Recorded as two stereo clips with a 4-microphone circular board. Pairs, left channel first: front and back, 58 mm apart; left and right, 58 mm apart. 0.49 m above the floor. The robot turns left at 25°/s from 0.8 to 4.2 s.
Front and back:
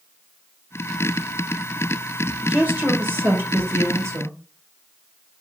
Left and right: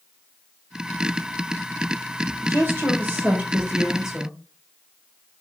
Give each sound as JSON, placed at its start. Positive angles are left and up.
{"t": 2.4, "sound": "a woman speaking", "azimuth_deg": -125, "distance_m": 1.6}